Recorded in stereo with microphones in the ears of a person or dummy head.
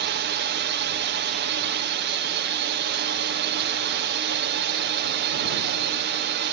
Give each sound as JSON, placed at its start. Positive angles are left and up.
{"t": 0.0, "sound": "a drone", "side_deg": -55}